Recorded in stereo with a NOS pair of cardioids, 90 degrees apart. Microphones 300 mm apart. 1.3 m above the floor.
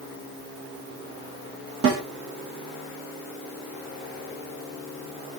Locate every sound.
1.8 s a snare drum: 45° right, 1.7 m